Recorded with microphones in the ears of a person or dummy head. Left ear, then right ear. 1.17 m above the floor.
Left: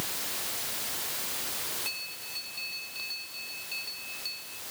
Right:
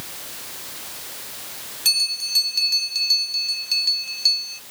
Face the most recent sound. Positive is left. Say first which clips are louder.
# right 16 dB
turn(degrees=-80)